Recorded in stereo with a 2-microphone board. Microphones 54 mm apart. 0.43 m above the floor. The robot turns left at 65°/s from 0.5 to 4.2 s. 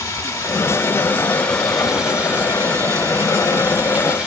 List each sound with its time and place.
0.0 s running water: 75° left, 1.3 m; by 4.3 s 165° right, 1.3 m